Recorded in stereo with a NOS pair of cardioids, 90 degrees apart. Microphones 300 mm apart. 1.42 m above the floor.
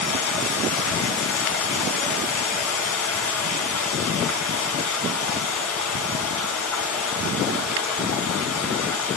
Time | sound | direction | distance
0.0 | running water | 65° left | 6 m